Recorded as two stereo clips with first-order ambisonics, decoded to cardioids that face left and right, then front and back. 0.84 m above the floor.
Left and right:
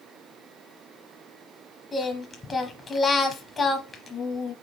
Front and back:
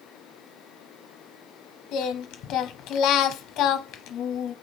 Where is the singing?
20° left, 0.8 m.